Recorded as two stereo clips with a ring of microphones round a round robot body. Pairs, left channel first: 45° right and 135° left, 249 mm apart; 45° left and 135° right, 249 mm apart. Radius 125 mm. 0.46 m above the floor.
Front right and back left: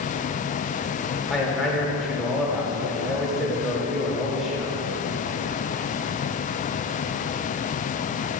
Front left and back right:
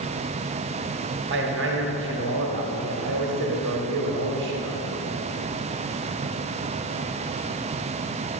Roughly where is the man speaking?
Behind right.